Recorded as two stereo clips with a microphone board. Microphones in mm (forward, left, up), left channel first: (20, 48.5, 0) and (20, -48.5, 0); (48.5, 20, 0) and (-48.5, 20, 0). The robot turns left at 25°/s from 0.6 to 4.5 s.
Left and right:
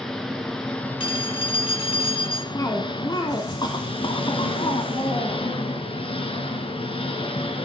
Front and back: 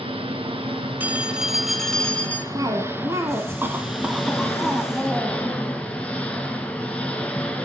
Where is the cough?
140° left, 1.7 m; by 5.5 s 95° left, 1.7 m.